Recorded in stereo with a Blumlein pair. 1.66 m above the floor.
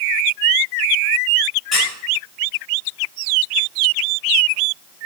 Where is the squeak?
15° left, 2.5 m.